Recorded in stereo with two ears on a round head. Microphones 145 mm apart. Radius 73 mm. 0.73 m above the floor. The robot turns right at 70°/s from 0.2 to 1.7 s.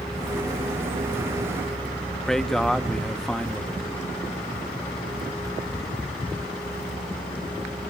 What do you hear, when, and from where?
2.3 s a man speaking: centre (ahead or behind), 0.8 m